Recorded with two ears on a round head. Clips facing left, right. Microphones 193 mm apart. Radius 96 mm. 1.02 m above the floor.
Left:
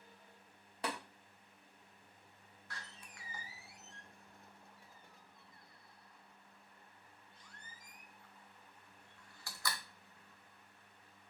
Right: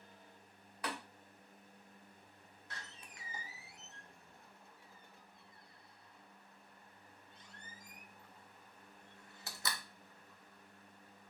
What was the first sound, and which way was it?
Tapping, 25° left (ahead or behind).